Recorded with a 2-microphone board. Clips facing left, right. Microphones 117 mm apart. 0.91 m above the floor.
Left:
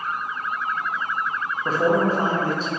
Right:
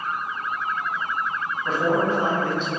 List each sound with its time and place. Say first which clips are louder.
1.6 s a man speaking: left 2 dB; 40° left (ahead or behind), 0.7 m